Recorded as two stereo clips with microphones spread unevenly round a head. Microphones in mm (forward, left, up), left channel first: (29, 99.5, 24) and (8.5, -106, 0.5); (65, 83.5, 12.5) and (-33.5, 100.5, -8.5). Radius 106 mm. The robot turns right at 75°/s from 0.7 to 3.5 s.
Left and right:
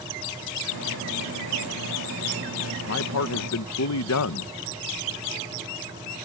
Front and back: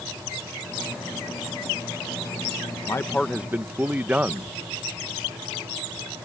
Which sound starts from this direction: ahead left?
A man speaking, at 2.9 s.